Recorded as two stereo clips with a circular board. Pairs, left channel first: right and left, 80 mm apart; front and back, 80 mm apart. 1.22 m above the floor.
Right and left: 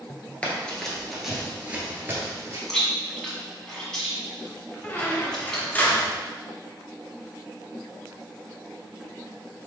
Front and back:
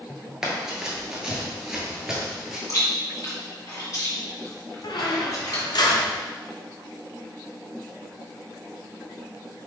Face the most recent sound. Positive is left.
turn(degrees=-25)